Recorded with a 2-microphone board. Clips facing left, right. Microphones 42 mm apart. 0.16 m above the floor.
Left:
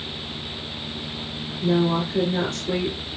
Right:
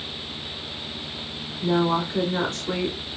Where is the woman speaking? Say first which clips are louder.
Left 1 dB; 35° right (ahead or behind), 2 m.